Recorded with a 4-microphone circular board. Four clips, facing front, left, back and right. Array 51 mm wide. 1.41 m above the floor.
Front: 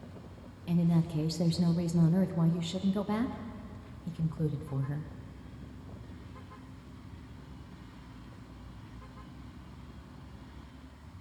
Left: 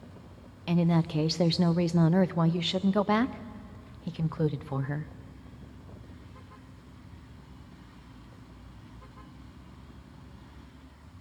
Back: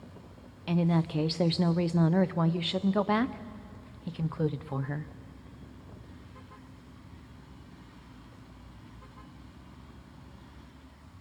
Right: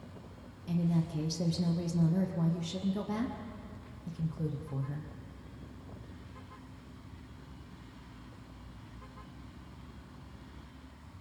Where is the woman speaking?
125° left, 0.5 m.